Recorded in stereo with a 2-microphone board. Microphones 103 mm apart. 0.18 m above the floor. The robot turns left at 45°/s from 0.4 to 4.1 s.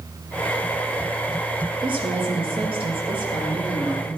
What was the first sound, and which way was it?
A woman speaking, 55° right.